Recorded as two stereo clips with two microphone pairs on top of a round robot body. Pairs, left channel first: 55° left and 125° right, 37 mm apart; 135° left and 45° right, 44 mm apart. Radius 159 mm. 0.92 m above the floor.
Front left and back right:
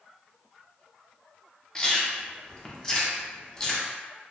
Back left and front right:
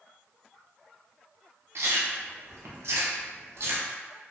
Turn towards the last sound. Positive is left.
turn(degrees=-25)